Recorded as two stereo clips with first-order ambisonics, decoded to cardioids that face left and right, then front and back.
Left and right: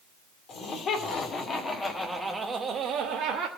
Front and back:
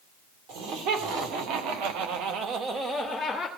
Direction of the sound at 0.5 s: 145° left.